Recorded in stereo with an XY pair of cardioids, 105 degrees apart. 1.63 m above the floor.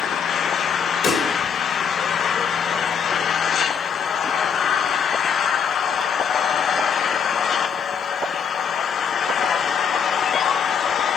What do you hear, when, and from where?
0.0 s an engine running: 60° left, 1.0 m
1.0 s a pop: 70° left, 6 m